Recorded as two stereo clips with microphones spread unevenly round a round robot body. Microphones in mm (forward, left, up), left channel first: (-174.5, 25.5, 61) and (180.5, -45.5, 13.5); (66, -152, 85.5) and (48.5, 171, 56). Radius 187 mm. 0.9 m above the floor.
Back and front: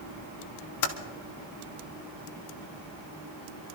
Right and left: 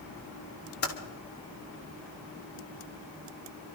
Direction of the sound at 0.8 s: 150° right.